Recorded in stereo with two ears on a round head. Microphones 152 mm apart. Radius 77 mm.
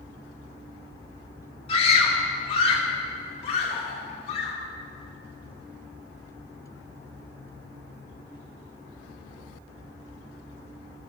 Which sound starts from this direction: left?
A scream, at 1.7 s.